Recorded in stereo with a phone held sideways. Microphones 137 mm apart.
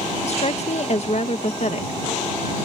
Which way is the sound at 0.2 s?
55° left (ahead or behind).